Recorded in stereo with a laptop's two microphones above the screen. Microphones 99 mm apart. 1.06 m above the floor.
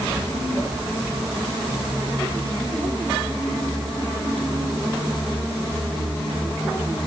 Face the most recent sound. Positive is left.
No sound to turn to.